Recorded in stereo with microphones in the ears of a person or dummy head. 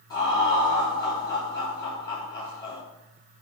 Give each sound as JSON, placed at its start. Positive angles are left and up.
{"t": 0.1, "sound": "laughter", "side_deg": 25, "distance_m": 3.5}